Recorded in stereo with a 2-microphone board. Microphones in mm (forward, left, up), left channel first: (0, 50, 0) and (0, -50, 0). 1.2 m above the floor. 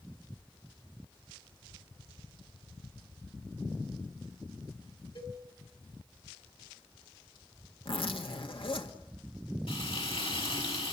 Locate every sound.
5.2 s a cowbell: 65° left (ahead or behind), 4.5 m
7.8 s a zipper: 65° left (ahead or behind), 1.8 m
9.7 s frying: 65° left (ahead or behind), 7 m